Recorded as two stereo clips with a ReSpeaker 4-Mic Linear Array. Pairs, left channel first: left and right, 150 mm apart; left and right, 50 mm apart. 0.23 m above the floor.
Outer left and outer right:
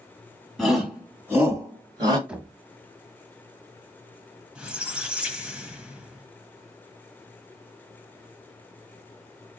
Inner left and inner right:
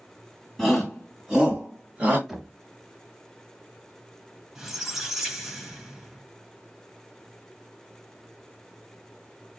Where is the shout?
Centre (ahead or behind), 1.8 m; by 2.2 s 30° right (ahead or behind), 2 m.